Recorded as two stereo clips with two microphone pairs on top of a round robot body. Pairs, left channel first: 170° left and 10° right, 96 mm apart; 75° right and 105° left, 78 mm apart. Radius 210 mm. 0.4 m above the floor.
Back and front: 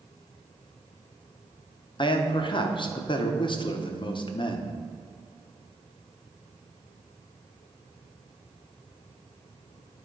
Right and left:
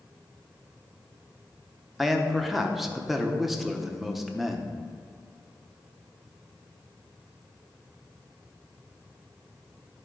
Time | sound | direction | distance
2.0 | a man speaking | 165° right | 1.1 m